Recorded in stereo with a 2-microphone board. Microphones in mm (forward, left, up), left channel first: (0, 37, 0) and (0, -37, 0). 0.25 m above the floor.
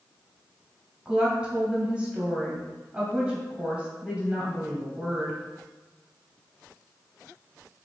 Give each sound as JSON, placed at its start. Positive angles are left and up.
{"t": 1.1, "sound": "a woman speaking", "side_deg": -15, "distance_m": 1.0}